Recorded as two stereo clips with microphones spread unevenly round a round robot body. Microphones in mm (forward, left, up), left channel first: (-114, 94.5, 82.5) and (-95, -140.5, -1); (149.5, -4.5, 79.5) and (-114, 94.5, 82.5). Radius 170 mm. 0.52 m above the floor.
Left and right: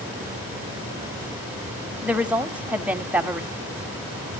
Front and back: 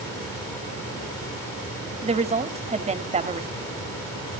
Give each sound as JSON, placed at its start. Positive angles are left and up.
{"t": 2.0, "sound": "a woman speaking", "azimuth_deg": -145, "distance_m": 1.7}